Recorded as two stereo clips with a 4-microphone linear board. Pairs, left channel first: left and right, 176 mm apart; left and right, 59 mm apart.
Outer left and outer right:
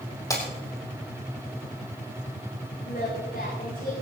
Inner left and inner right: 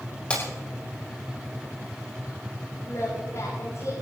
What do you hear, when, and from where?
0.3 s breaking glass: 20° left (ahead or behind), 5 m
2.9 s singing: 60° left (ahead or behind), 9 m